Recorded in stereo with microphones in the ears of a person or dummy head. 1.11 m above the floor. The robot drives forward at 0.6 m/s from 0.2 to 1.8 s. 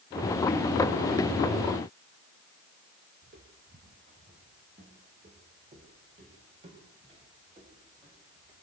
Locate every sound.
3.2 s footsteps: 50° right (ahead or behind), 3 m; by 8.5 s 35° right (ahead or behind), 10 m